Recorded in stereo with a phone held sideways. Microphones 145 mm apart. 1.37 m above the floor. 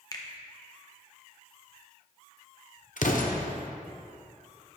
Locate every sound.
0.1 s a finger snap: 25° left (ahead or behind), 0.8 m
3.0 s an explosion: 65° left (ahead or behind), 0.7 m